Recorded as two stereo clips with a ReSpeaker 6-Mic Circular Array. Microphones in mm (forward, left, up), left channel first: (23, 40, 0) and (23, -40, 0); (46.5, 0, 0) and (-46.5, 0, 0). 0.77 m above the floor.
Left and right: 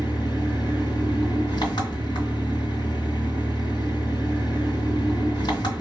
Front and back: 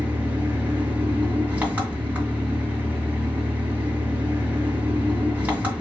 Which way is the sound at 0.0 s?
105° left.